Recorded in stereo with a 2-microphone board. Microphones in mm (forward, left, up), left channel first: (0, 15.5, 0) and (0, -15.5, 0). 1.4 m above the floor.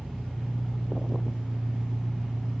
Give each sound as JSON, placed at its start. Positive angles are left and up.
{"t": 0.0, "sound": "an engine running", "side_deg": 10, "distance_m": 1.8}